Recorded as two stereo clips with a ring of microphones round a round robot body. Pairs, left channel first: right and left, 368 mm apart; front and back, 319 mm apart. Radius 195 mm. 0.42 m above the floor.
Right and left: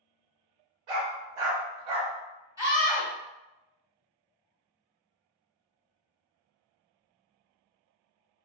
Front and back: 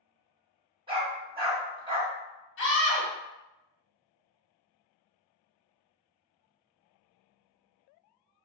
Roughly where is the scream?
Ahead.